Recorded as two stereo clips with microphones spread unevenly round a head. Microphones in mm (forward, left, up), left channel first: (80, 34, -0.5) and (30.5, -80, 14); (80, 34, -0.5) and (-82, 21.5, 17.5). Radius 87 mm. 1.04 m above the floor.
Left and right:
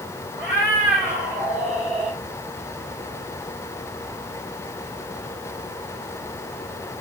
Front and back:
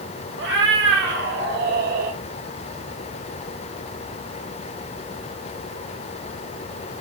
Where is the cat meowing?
Straight behind, 4 m; by 2.2 s 155° left, 3 m.